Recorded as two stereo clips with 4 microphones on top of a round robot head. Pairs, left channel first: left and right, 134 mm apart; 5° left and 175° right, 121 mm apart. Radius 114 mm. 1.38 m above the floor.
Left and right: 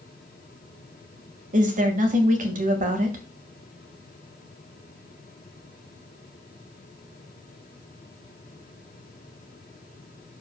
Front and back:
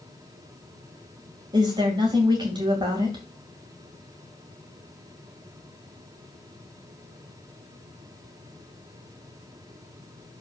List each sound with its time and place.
1.5 s a woman speaking: 115° right, 2 m